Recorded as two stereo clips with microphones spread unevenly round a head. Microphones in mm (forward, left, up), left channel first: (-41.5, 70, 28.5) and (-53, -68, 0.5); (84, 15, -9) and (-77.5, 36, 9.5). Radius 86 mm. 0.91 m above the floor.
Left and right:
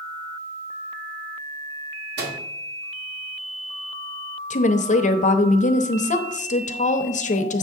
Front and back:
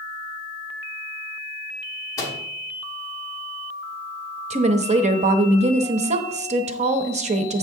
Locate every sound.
2.2 s a microwave: 80° right, 1.4 m
4.5 s a woman speaking: 125° left, 0.8 m